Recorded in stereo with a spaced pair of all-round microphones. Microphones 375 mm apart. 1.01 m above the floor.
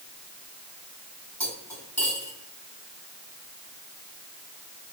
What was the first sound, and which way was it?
Cutlery clinking, 5° left (ahead or behind).